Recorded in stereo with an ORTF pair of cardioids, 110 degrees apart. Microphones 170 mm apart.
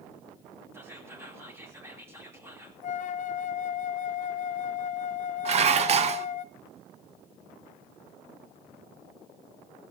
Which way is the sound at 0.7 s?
15° right.